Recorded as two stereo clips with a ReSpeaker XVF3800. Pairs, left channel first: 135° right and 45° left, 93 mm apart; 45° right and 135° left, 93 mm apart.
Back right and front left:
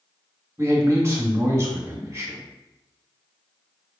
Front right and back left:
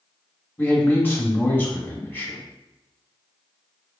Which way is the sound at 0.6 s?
10° left.